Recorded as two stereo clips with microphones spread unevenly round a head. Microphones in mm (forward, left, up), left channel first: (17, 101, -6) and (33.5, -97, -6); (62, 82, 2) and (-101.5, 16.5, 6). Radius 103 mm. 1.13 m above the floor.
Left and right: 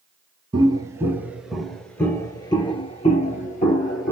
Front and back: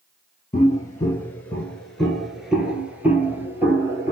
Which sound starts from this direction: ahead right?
Footsteps, at 0.5 s.